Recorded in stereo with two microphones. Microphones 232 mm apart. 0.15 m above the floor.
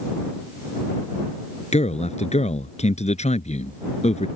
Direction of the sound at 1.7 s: 30° left (ahead or behind).